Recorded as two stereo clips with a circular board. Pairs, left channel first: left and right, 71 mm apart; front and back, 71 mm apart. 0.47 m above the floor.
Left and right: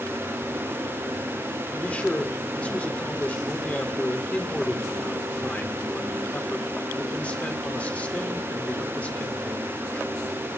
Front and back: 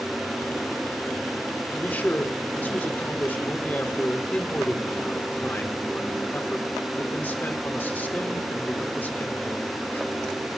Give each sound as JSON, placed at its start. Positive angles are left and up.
{"t": 1.7, "sound": "a man speaking", "azimuth_deg": 40, "distance_m": 1.6}